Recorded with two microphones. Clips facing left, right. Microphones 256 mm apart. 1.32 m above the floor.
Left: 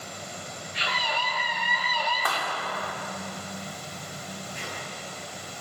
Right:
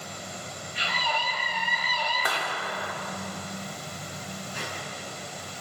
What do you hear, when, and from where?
0.7 s a scream: 80° left, 4 m; by 2.4 s 45° left (ahead or behind), 3.5 m
2.2 s a clap: 20° right (ahead or behind), 3 m
4.5 s a squeak: 75° right (ahead or behind), 5.5 m